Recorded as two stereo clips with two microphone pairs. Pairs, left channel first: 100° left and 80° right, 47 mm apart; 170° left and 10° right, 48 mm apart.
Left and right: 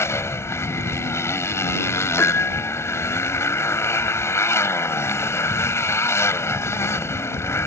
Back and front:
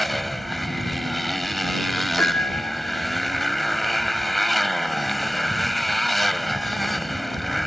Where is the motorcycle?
80° left.